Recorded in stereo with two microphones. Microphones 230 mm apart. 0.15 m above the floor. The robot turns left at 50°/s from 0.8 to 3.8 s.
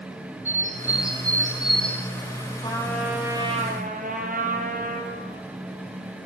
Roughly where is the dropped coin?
I don't hear a dropped coin.